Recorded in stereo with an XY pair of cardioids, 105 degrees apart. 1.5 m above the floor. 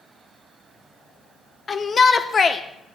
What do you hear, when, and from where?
1.7 s a shout: 35° left, 0.8 m